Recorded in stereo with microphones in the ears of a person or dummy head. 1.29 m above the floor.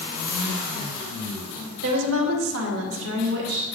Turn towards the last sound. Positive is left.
turn(degrees=-50)  # may be behind; listen again after turning